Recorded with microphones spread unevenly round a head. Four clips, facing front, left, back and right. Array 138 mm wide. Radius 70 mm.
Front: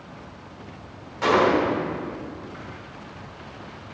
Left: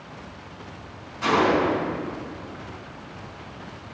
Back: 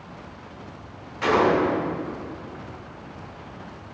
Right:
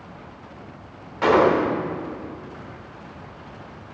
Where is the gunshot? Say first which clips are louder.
Right 3 dB, even; 80° right, 1.5 m.